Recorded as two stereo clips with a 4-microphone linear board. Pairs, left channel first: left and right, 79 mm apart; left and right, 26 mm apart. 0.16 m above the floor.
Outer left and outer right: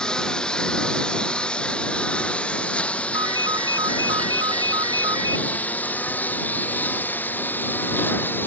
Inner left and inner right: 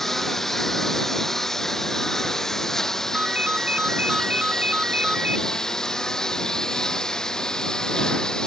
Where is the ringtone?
65° right (ahead or behind).